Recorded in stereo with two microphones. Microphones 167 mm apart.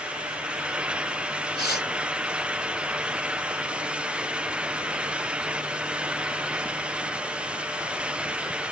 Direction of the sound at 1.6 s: 80° left.